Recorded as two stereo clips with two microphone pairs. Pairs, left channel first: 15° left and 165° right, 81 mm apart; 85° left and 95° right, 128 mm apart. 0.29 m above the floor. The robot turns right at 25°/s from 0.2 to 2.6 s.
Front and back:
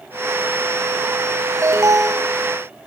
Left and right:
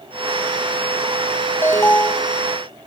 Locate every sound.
1.6 s an alarm: 150° left, 2.5 m; by 2.3 s 165° left, 2.5 m